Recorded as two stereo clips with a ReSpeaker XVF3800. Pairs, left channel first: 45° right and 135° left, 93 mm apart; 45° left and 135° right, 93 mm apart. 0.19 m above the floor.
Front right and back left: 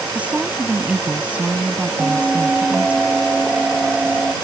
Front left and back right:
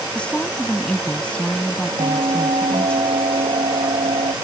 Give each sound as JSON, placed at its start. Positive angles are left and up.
{"t": 0.1, "sound": "a woman speaking", "azimuth_deg": 95}
{"t": 2.0, "sound": "a bell", "azimuth_deg": -140}